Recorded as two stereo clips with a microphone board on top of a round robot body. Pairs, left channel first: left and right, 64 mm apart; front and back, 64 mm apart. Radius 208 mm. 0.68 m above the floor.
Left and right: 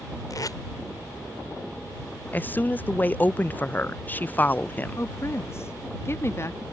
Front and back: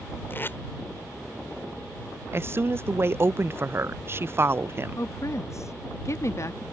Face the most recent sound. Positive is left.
turn(degrees=40)